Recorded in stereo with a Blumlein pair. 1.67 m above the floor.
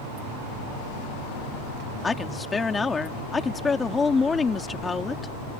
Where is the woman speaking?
15° left.